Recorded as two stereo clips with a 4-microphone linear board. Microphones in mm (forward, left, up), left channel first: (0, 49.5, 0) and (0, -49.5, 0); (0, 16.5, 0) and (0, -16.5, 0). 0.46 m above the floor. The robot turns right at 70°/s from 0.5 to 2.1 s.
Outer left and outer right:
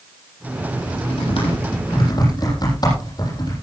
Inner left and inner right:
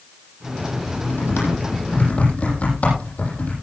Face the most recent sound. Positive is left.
turn(degrees=45)  # may be behind; listen again after turning